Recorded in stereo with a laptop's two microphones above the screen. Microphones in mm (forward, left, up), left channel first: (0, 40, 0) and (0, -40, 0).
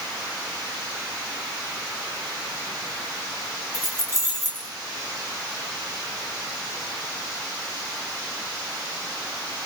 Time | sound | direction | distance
3.7 | keys jangling | 45° right (ahead or behind) | 3 m